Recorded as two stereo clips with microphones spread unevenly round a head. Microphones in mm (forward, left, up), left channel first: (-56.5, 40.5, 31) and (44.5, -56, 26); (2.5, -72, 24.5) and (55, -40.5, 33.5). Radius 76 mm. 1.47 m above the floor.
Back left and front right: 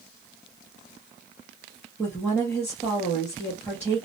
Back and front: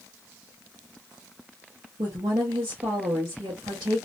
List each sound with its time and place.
2.0 s a woman speaking: 60° left, 0.9 m